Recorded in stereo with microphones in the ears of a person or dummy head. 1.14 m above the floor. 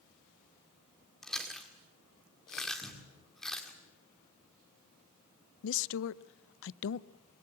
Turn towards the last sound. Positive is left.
turn(degrees=75)  # may be behind; listen again after turning